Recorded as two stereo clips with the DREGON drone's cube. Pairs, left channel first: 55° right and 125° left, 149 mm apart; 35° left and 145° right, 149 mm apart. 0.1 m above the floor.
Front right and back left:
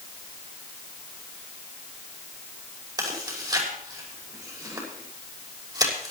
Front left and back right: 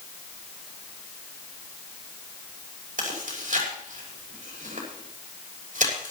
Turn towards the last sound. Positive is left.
turn(degrees=-175)